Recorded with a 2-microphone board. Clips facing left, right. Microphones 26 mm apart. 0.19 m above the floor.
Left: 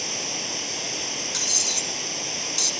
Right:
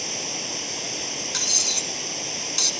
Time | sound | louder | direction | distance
0.0 | running water | left 1 dB | 10° left (ahead or behind) | 1.1 m
1.3 | cutlery clinking | right 2 dB | 20° right (ahead or behind) | 1.0 m